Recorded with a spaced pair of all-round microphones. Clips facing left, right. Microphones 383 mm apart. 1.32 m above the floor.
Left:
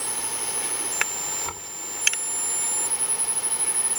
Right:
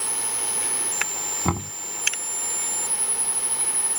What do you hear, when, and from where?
1.4 s knocking: 75° right (ahead or behind)